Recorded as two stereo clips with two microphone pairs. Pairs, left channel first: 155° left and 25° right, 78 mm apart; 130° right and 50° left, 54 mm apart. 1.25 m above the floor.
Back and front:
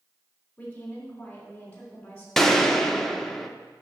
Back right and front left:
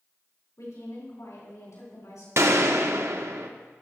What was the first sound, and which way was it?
A woman speaking, 130° right.